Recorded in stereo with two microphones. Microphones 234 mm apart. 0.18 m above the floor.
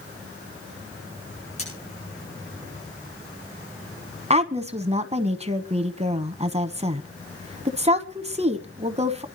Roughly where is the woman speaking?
Right.